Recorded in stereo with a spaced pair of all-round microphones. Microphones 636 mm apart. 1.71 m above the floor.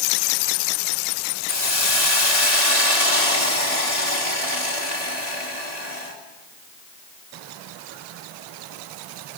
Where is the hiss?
70° left (ahead or behind), 3 m.